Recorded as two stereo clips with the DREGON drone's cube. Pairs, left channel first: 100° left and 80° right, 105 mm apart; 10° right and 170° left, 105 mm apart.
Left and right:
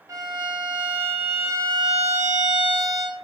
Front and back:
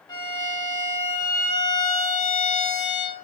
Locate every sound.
0.1 s a violin: 30° right, 0.9 m